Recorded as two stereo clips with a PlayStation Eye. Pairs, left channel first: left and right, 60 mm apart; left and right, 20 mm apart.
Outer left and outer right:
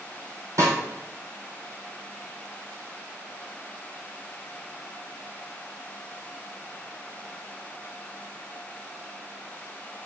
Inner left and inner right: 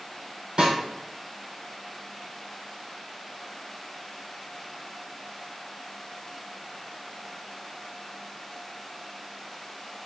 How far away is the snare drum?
About 2.5 m.